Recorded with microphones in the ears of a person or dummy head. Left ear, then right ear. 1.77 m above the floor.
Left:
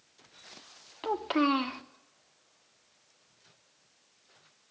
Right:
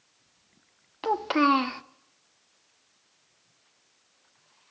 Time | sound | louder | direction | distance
1.0 | a child speaking | right 5 dB | 25° right (ahead or behind) | 0.9 m